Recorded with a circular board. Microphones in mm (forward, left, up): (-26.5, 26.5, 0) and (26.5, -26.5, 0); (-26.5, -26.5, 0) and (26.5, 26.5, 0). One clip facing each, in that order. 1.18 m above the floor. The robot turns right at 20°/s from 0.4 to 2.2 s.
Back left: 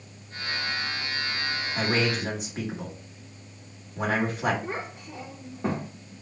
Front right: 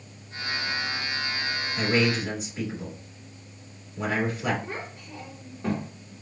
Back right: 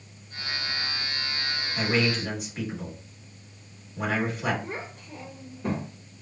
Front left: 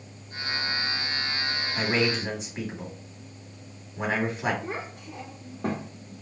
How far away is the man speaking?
About 1.8 m.